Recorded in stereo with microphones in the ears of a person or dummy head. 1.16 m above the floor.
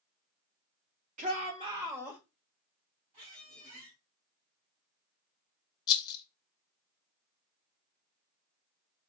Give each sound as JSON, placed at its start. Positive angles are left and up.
{"t": 1.2, "sound": "a shout", "side_deg": -35, "distance_m": 0.8}
{"t": 3.1, "sound": "a squeak", "side_deg": -40, "distance_m": 2.5}
{"t": 5.9, "sound": "a rattle", "side_deg": 20, "distance_m": 0.5}